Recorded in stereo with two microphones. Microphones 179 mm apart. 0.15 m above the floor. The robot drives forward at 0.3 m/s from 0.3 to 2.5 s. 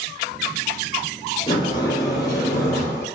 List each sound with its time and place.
1.5 s a sliding door: 25° left (ahead or behind), 0.6 m; by 3.0 s 15° left (ahead or behind), 0.9 m